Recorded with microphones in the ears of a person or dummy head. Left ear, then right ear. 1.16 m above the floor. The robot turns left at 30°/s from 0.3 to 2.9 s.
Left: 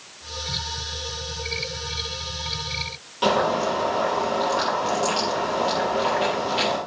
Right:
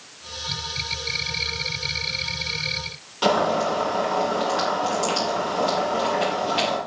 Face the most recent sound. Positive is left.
turn(degrees=-15)  # may be behind; listen again after turning